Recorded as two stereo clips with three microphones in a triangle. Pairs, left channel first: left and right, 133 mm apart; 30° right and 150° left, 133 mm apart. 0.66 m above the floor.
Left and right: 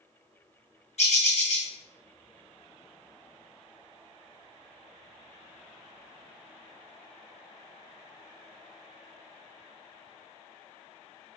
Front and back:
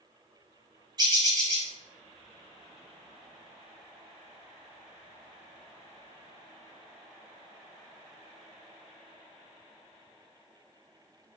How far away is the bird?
About 0.8 m.